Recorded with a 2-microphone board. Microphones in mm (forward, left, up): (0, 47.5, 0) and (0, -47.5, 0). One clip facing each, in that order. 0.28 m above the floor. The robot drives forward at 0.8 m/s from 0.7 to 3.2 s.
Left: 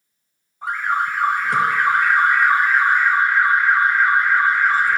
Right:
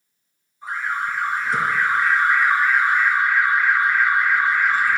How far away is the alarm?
About 1.7 m.